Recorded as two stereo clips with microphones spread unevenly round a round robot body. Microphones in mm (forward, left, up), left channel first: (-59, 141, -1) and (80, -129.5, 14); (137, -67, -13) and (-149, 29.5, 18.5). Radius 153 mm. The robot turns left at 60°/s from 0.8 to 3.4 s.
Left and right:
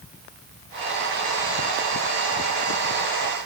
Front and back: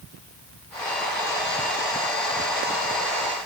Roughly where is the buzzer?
I don't hear a buzzer.